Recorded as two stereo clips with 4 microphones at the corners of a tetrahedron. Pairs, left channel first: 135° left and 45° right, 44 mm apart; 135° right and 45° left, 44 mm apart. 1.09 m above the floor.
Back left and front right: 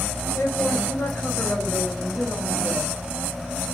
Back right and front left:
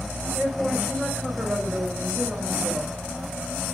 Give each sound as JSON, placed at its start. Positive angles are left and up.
{"t": 0.3, "sound": "a man speaking", "azimuth_deg": 115, "distance_m": 5.0}